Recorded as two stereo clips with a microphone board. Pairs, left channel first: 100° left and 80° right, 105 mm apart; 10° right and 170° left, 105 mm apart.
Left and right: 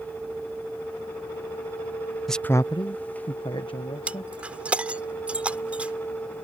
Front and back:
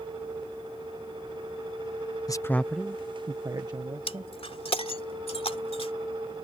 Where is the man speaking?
15° left; by 4.3 s 135° left.